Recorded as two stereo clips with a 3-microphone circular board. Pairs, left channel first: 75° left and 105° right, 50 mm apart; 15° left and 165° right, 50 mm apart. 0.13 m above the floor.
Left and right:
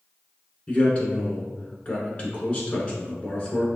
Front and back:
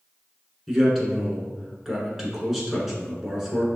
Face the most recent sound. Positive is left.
turn(degrees=110)